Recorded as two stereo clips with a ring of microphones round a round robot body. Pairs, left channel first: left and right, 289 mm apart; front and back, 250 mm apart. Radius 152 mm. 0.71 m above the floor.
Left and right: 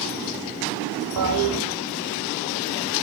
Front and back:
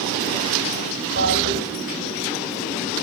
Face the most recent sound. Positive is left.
turn(degrees=-120)